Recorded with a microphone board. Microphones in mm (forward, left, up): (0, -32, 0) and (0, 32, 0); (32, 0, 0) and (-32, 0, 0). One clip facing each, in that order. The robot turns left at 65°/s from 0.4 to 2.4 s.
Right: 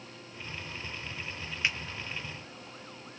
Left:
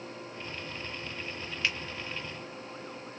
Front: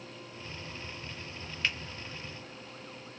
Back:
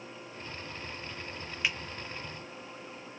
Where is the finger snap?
120° right, 0.8 m; by 1.8 s 130° right, 0.8 m.